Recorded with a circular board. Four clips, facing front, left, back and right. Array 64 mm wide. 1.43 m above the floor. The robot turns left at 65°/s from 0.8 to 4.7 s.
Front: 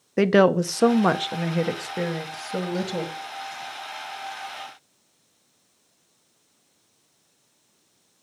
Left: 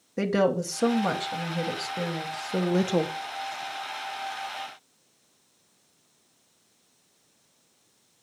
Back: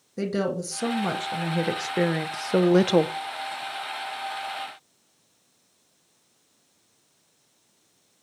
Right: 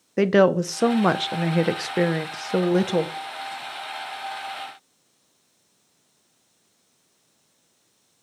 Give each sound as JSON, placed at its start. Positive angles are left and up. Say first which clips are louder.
{"t": 0.2, "sound": "a woman speaking", "louder": "right 7 dB, front 10 dB", "azimuth_deg": -35, "distance_m": 0.8}